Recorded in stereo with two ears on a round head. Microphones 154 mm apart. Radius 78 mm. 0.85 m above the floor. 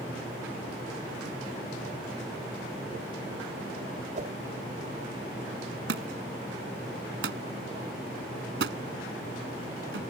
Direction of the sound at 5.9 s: 80° right.